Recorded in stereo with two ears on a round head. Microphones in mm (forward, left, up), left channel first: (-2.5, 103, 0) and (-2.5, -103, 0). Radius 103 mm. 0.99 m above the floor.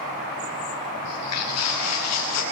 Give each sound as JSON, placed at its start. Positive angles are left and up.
{"t": 1.0, "sound": "footsteps", "side_deg": 75, "distance_m": 6.0}